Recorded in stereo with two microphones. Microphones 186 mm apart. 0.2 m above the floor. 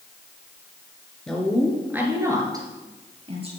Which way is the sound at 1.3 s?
5° left (ahead or behind).